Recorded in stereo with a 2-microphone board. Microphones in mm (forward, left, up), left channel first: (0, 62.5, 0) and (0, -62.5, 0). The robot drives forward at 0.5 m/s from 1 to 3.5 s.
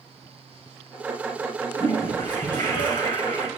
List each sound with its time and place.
1.8 s a toilet flushing: 35° left (ahead or behind), 7 m; by 3.5 s 40° left (ahead or behind), 6 m